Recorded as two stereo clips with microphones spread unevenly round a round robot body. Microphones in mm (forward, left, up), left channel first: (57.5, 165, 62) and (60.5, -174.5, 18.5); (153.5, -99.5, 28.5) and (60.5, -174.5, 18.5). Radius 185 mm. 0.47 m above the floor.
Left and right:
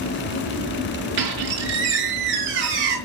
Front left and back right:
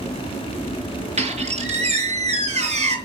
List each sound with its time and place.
1.2 s a squeak: 110° right, 5 m